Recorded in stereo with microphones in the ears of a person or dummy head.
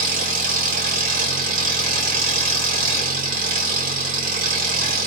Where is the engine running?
50° right (ahead or behind), 1.4 m.